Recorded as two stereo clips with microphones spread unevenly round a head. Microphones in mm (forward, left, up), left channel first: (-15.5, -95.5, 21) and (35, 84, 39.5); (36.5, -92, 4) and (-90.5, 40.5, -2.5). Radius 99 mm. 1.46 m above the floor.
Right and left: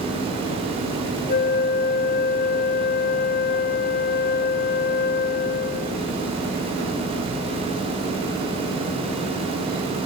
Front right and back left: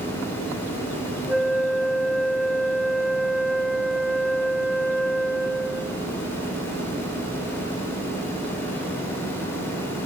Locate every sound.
1.3 s a flute: 140° right, 0.7 m